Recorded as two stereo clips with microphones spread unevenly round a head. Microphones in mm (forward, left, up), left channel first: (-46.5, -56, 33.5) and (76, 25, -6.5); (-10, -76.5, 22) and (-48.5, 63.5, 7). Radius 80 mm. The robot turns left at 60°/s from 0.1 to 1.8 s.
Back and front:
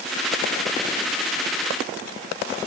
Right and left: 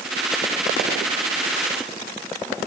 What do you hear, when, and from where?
Only background noise.